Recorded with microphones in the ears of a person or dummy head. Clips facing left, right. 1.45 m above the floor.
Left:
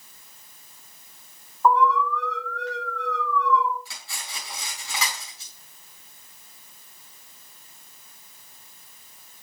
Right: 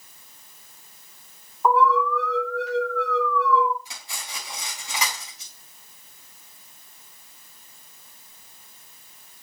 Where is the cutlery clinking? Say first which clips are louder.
Right 1 dB; 20° right (ahead or behind), 4 m.